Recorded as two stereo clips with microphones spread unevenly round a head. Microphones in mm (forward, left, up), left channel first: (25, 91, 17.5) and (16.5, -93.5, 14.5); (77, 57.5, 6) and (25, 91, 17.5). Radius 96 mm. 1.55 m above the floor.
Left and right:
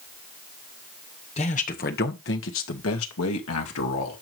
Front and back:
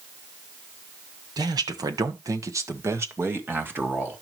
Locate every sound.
1.4 s a man speaking: 145° left, 1.6 m; by 4.2 s 85° left, 2.5 m